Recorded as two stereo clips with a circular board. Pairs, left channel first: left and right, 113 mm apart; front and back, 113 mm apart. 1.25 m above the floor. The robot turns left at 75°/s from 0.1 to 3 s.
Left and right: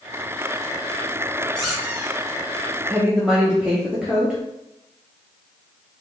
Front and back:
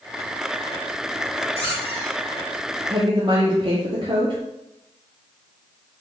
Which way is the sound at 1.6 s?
5° left.